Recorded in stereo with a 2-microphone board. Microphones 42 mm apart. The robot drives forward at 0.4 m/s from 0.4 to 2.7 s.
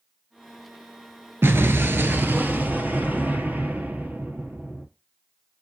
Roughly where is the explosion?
Right.